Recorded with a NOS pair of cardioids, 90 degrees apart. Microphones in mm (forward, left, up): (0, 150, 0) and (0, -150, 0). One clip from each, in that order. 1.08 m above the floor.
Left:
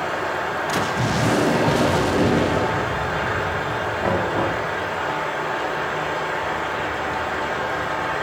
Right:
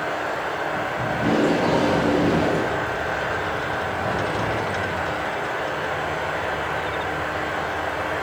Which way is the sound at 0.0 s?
65° left.